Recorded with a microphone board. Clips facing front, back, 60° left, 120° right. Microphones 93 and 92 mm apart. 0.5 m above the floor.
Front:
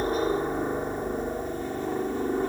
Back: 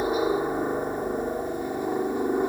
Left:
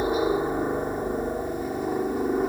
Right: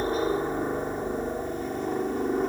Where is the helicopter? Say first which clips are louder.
Back 2 dB, left 3 dB; 120° left; by 2.5 s 135° left.